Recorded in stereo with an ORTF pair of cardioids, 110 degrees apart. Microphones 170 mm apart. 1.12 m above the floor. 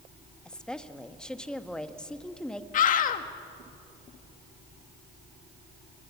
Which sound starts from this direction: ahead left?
A scream, at 2.7 s.